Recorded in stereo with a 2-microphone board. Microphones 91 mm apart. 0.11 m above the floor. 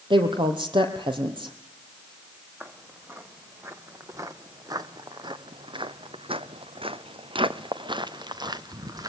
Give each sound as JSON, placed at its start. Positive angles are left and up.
{"t": 0.1, "sound": "a woman speaking", "side_deg": -65, "distance_m": 3.5}
{"t": 2.6, "sound": "footsteps", "side_deg": -25, "distance_m": 2.5}